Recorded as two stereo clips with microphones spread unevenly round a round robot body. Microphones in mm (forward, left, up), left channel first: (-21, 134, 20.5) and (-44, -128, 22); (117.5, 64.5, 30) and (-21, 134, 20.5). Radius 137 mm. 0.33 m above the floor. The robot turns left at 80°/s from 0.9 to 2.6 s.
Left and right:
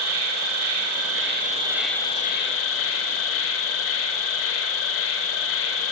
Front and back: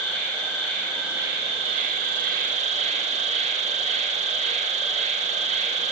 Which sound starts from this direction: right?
An insect, at 0.0 s.